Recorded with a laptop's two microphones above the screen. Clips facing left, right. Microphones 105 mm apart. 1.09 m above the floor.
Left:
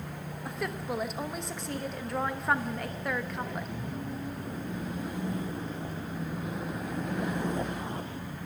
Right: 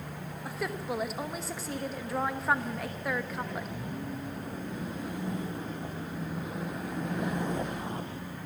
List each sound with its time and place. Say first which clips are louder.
0.5 s a woman speaking: even; centre (ahead or behind), 1.0 m